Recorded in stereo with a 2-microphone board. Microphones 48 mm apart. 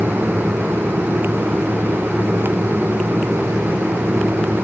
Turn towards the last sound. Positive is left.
No sound to turn to.